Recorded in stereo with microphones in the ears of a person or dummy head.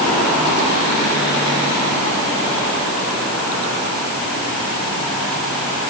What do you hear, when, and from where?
Only background noise.